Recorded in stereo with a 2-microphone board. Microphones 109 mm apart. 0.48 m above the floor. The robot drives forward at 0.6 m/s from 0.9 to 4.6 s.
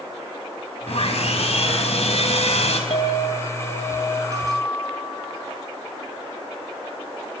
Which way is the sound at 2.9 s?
70° left (ahead or behind).